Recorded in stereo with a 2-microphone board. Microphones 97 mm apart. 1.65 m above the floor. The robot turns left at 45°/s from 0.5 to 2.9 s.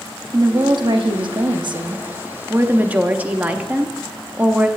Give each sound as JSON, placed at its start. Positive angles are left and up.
{"t": 0.3, "sound": "a woman speaking", "azimuth_deg": -55, "distance_m": 0.7}